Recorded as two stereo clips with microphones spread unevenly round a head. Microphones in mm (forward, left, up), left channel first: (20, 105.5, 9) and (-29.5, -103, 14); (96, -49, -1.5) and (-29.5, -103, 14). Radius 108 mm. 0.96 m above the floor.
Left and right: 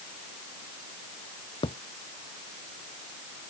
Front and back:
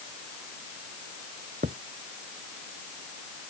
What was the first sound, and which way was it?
A thud, 145° left.